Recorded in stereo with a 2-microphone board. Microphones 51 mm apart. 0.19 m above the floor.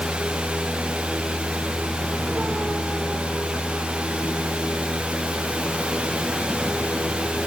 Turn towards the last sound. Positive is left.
No sound to turn to.